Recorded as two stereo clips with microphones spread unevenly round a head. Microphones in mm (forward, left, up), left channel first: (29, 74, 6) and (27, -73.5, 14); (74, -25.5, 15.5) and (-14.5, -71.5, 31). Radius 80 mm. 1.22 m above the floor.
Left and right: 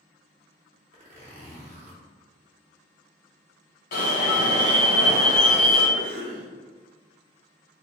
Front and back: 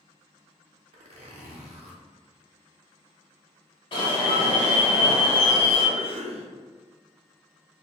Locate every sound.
0.9 s a zipper: 145° right, 0.8 m
3.9 s an alarm: 75° left, 1.2 m
6.0 s a cough: 130° right, 0.8 m